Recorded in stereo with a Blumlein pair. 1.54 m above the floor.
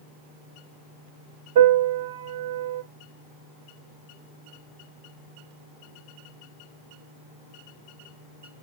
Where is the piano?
50° right, 1.9 m.